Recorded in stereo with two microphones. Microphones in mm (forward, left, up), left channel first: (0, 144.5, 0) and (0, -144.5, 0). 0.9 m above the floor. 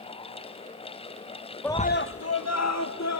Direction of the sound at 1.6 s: 5° left (ahead or behind).